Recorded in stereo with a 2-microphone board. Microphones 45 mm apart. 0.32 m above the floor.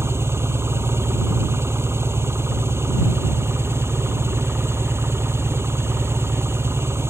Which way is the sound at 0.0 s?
65° right (ahead or behind).